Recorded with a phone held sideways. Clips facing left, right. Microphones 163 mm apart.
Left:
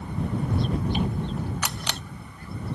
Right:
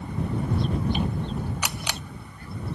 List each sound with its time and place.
1.6 s a camera shutter: 10° right (ahead or behind)